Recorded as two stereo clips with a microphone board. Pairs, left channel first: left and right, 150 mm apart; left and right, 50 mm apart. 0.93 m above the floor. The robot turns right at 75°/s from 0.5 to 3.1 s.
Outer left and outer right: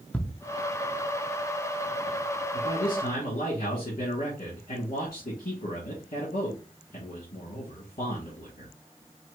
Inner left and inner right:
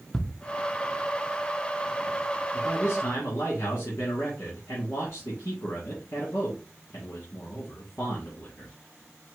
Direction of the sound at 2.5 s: 60° left.